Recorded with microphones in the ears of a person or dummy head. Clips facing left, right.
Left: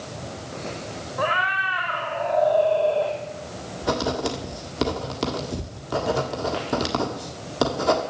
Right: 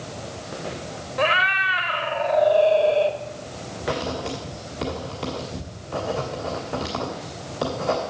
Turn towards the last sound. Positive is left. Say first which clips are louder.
# left 3 dB
turn(degrees=55)  # may be behind; listen again after turning